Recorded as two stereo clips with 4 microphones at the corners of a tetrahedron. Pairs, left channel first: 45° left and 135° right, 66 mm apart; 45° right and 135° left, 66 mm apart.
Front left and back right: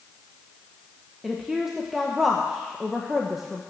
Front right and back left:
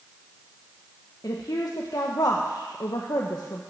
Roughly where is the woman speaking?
Ahead right.